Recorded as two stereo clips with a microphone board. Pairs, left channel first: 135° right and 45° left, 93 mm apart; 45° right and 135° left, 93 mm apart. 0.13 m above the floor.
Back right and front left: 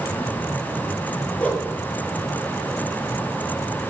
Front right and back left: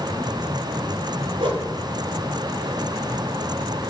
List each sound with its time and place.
1.4 s a whoosh: 150° left, 0.6 m